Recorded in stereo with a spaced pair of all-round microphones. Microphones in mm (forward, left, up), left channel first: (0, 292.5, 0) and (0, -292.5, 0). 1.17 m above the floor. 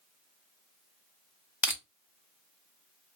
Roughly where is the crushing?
Centre.